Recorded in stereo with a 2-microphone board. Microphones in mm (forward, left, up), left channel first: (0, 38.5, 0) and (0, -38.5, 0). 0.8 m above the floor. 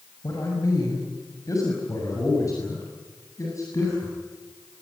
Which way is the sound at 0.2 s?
45° left (ahead or behind).